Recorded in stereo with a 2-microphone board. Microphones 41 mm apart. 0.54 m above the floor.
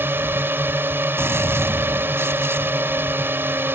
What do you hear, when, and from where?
0.0 s a drone: 60° right (ahead or behind)
1.2 s a gunshot: 80° right